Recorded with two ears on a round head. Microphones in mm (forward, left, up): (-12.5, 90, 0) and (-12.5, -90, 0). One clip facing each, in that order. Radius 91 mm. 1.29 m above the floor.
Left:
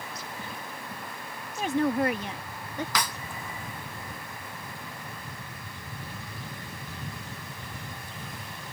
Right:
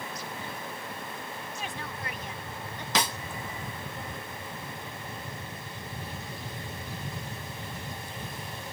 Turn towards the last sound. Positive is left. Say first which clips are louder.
# right 5 dB
turn(degrees=-25)  # may be behind; listen again after turning